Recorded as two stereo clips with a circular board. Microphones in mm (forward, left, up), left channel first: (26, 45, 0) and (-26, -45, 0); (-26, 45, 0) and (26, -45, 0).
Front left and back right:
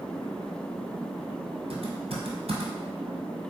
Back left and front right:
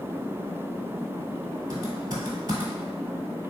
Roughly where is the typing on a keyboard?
Right.